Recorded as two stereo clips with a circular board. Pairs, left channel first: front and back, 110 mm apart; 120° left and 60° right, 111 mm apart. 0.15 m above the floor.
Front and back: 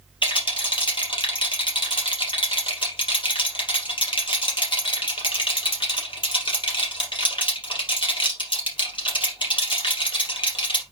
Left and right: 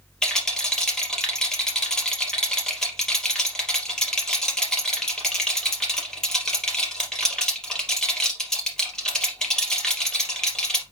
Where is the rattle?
35° left, 3 m.